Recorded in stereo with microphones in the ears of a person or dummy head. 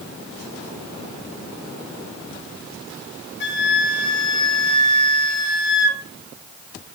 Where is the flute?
50° left (ahead or behind), 0.6 m.